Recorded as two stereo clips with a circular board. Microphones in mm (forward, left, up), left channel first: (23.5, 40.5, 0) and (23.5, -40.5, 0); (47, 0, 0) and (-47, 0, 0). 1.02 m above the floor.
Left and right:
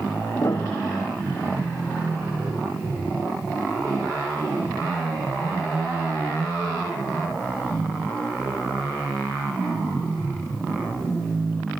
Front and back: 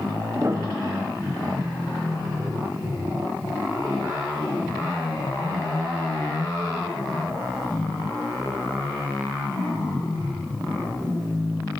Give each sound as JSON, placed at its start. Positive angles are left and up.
{"t": 0.3, "sound": "a piano", "azimuth_deg": 125, "distance_m": 0.6}